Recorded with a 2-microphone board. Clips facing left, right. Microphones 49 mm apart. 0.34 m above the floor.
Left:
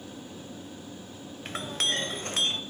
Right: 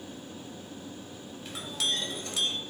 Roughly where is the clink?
Left.